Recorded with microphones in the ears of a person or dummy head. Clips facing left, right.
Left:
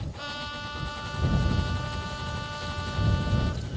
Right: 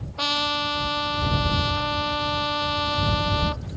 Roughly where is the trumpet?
Right.